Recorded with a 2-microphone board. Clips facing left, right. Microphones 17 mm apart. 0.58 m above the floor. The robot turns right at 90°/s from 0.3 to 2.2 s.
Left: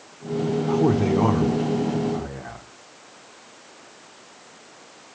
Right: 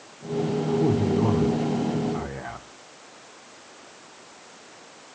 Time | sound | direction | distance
0.7 | a man speaking | 55° left | 1.1 m